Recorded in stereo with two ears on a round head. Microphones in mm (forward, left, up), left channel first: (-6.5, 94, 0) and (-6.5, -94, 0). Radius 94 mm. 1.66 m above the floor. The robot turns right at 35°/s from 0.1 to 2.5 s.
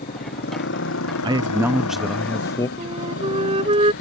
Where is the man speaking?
25° right; by 2.7 s 20° left.